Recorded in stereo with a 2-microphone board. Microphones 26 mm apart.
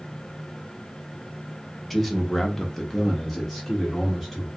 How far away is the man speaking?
About 0.7 m.